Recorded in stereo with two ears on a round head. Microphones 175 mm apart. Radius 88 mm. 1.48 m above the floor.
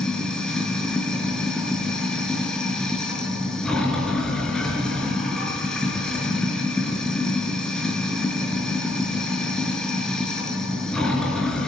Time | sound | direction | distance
0.0 | running water | 5° left (ahead or behind) | 5.5 m